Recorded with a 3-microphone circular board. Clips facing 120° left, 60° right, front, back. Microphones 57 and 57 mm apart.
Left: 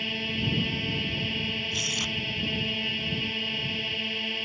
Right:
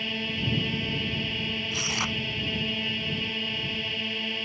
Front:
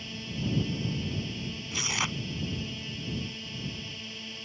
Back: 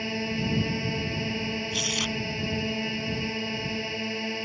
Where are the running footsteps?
I don't hear running footsteps.